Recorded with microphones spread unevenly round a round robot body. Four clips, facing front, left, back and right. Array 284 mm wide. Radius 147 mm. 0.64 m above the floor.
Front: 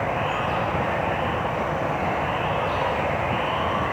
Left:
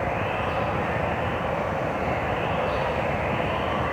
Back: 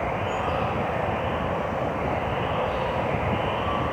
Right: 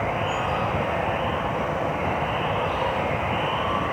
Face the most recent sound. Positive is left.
turn(degrees=-10)